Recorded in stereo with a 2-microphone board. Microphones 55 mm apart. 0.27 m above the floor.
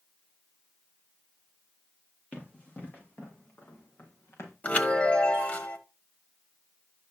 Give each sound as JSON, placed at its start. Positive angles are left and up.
{"t": 2.3, "sound": "running footsteps", "side_deg": 30, "distance_m": 5.0}
{"t": 4.6, "sound": "a chime", "side_deg": 30, "distance_m": 1.1}